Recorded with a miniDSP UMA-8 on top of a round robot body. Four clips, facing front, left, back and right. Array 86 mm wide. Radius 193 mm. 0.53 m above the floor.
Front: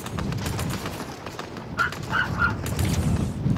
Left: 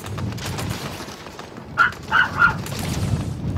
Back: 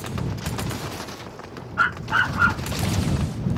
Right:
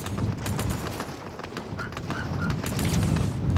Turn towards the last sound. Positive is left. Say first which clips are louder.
# left 18 dB, back 4 dB
turn(degrees=105)